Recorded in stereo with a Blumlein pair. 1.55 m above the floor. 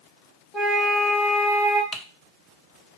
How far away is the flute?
About 0.8 m.